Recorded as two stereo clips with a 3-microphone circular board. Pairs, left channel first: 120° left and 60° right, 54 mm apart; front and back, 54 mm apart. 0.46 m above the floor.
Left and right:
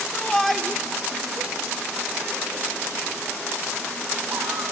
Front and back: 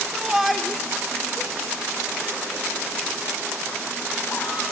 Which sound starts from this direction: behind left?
A shout, at 0.1 s.